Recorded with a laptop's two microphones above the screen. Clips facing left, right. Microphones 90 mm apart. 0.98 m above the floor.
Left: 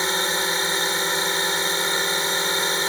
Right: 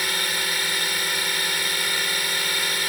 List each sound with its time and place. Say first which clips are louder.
0.0 s a drone: left 4 dB; 25° left (ahead or behind)